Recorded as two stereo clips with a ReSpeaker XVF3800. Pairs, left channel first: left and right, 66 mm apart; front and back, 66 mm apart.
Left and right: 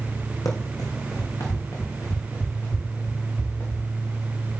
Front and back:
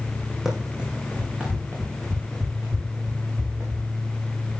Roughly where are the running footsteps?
Left.